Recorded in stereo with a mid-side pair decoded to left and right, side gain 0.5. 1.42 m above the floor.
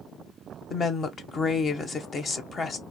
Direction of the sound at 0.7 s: 40° left.